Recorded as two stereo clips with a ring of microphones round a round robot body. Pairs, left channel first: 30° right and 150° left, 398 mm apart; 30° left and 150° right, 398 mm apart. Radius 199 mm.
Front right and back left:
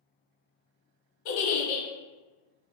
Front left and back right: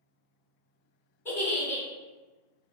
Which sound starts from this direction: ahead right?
A giggle, at 1.2 s.